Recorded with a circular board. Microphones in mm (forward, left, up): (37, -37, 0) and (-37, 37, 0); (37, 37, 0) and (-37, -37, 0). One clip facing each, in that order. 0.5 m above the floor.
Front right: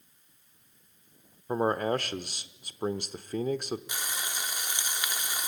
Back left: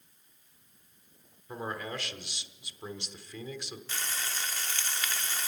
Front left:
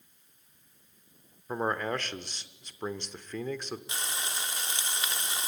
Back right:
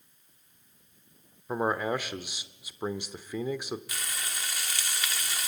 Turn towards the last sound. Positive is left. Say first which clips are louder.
# front right 1 dB, front left 2 dB
turn(degrees=15)